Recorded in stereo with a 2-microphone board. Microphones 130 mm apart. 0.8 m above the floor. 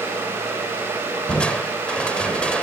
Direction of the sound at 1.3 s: 10° left (ahead or behind).